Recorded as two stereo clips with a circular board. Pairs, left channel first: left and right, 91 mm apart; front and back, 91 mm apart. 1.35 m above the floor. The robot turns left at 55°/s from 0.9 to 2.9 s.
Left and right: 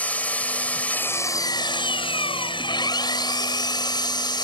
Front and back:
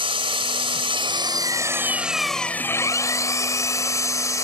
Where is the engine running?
165° left; by 4.4 s 55° left.